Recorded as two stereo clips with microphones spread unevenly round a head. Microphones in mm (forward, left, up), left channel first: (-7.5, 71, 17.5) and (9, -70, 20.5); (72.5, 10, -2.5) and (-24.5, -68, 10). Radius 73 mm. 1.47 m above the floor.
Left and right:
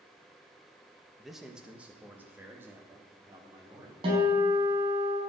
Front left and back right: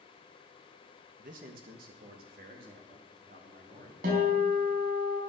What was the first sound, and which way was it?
A man speaking, 175° right.